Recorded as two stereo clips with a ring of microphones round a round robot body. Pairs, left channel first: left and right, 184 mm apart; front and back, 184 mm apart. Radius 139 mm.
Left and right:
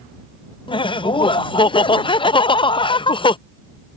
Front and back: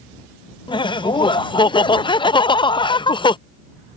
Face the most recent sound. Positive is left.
turn(degrees=45)